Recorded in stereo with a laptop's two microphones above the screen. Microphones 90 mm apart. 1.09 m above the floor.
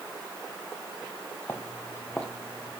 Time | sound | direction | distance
1.5 | footsteps | 25° left (ahead or behind) | 1.3 m